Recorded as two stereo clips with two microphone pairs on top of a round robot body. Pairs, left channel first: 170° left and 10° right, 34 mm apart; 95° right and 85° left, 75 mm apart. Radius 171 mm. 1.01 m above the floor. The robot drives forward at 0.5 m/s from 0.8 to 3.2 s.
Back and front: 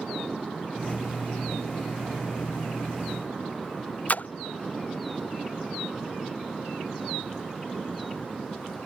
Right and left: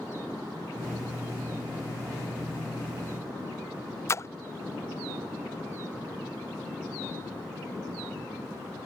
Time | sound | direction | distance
4.1 | a splash | 150° right | ?